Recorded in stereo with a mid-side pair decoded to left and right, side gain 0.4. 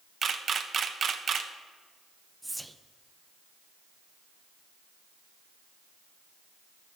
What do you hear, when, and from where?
0.2 s a camera shutter: 50° right, 0.8 m
2.4 s whispering: 10° right, 0.7 m